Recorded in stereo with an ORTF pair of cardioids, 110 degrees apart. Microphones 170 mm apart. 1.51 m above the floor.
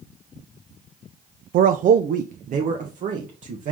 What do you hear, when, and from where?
1.5 s a man speaking: 55° right, 0.5 m; by 3.7 s 45° right, 1.8 m